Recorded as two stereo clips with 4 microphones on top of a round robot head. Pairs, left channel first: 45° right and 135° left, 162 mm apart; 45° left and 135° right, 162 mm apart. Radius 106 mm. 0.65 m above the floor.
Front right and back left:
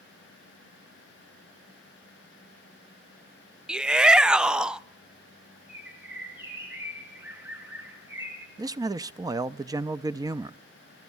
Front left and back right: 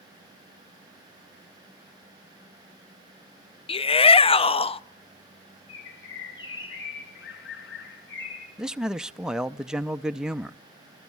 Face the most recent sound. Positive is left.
turn(degrees=145)